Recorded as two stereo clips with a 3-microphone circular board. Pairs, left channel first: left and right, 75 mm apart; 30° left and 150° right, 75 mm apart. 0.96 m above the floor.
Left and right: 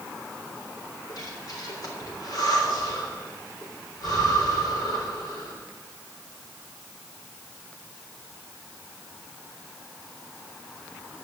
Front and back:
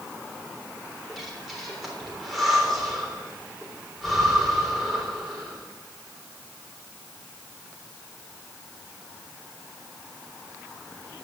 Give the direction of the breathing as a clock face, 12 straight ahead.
8 o'clock.